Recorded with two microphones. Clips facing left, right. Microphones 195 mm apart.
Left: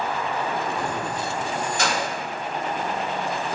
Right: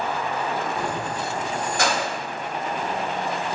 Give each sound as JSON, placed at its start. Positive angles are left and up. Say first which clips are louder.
{"t": 0.8, "sound": "keys jangling", "louder": "even", "side_deg": -5, "distance_m": 0.8}